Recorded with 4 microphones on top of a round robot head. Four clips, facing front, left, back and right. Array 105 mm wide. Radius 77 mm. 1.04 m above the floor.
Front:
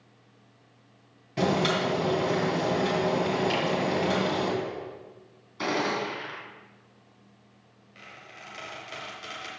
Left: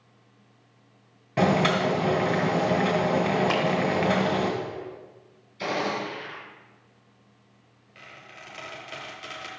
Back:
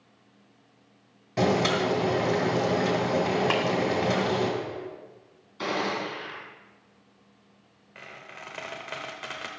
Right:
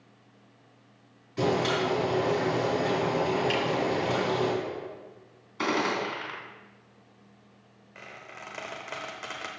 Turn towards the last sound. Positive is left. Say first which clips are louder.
# right 2 dB, back 3 dB
turn(degrees=-140)